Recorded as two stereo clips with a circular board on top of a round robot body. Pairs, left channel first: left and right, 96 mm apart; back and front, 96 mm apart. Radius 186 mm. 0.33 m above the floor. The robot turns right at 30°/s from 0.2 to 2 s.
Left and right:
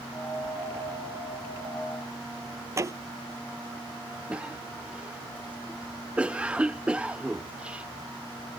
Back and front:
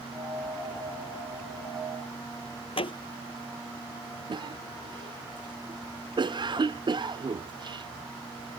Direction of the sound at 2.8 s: 150° right.